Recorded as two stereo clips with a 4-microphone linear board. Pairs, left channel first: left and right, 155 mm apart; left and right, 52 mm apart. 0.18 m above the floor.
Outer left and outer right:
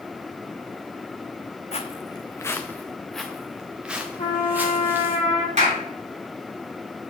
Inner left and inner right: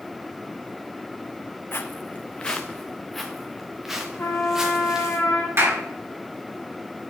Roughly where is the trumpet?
Left.